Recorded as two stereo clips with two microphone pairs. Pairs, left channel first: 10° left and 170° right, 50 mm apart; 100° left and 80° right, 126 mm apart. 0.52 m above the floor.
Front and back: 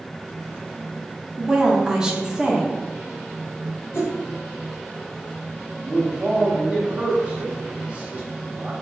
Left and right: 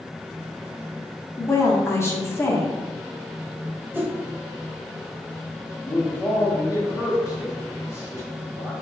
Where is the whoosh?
Straight ahead, 0.7 m.